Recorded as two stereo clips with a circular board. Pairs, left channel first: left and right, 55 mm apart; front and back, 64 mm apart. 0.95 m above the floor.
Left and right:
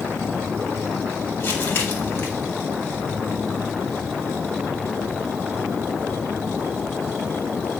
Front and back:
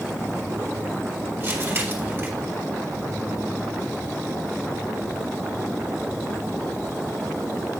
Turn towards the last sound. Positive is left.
turn(degrees=130)